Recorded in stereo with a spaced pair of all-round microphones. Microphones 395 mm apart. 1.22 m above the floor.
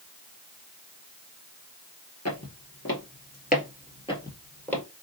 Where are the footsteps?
45° left (ahead or behind), 1.6 m; by 4.8 s 5° left (ahead or behind), 1.9 m.